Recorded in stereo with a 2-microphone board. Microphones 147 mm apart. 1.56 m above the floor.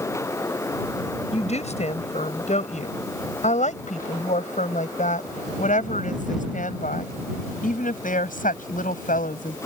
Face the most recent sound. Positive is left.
turn(degrees=70)  # may be behind; listen again after turning